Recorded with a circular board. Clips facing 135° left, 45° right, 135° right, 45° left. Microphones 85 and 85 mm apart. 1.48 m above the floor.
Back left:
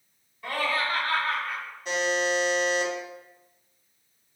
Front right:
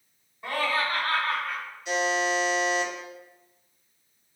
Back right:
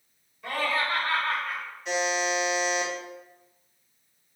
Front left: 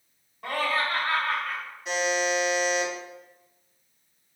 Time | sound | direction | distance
0.4 | laughter | 20° left | 1.4 m
1.9 | a buzzer | 130° left | 0.9 m